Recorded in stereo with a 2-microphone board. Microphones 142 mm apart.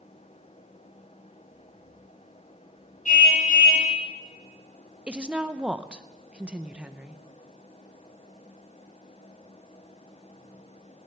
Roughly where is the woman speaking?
Centre.